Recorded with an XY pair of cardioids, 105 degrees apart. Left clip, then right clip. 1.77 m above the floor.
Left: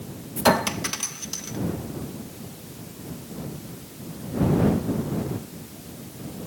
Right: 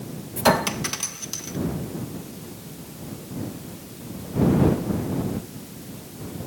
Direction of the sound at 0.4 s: 5° left.